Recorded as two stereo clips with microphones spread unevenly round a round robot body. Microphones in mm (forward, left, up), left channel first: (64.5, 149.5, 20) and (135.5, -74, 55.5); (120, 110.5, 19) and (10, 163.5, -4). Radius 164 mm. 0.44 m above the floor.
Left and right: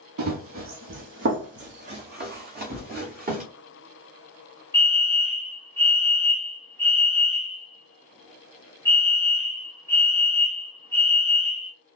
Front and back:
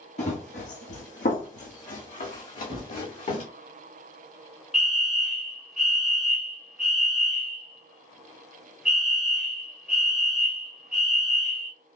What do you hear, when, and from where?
0.2 s running footsteps: 60° right, 1.0 m; by 3.5 s 20° right, 2.5 m
2.7 s a gunshot: straight behind, 1.1 m
4.7 s a fire alarm: 105° left, 1.7 m